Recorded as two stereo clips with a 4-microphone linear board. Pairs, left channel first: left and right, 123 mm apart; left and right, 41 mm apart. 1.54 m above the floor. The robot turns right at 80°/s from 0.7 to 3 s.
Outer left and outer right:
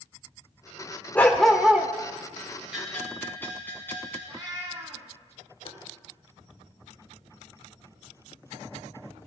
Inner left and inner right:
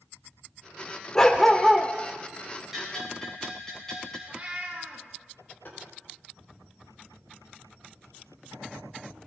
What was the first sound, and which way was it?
A dog barking, 150° left.